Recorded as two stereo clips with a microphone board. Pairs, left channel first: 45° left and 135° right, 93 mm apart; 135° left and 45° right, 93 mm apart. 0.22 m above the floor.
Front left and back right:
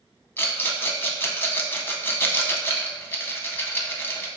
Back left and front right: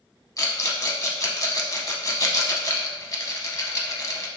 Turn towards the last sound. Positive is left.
turn(degrees=100)